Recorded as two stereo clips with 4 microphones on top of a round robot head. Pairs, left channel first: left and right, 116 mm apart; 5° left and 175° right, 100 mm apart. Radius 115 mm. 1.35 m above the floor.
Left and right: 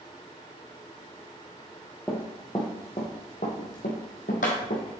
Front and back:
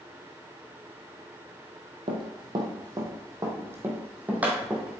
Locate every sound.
2.1 s running footsteps: 165° left, 1.8 m; by 5.0 s 105° left, 2.5 m